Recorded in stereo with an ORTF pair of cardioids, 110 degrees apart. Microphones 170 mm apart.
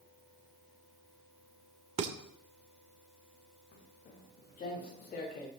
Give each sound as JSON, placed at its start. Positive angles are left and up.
{"t": 2.0, "sound": "dishes clattering", "azimuth_deg": -40, "distance_m": 2.0}
{"t": 3.7, "sound": "footsteps", "azimuth_deg": 50, "distance_m": 6.5}